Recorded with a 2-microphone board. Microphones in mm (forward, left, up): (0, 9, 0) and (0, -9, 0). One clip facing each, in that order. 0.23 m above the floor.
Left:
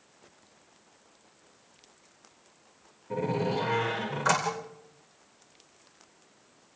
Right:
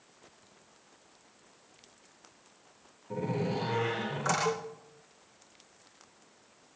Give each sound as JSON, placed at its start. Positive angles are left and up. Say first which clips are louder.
{"t": 3.1, "sound": "a door slam", "louder": "left 4 dB", "side_deg": 20, "distance_m": 9.5}
{"t": 4.5, "sound": "a cowbell", "louder": "right 1 dB", "side_deg": -65, "distance_m": 2.0}